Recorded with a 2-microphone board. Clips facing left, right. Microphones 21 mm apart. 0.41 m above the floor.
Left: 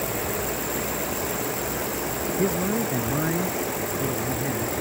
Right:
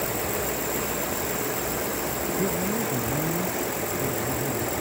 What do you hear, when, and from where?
2.4 s a man speaking: 70° left (ahead or behind); by 4.8 s 60° left (ahead or behind)